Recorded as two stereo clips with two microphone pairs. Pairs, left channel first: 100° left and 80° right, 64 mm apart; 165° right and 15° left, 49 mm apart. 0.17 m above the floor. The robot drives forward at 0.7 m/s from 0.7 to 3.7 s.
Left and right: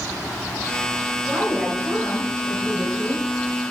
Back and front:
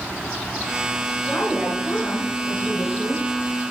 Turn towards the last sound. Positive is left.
turn(degrees=-175)